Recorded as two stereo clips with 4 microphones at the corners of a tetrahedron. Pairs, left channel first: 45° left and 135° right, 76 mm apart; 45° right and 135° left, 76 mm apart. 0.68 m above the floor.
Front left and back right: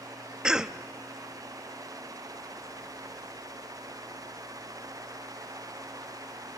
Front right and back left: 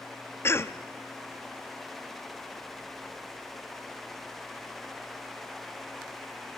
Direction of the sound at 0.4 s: 60° right.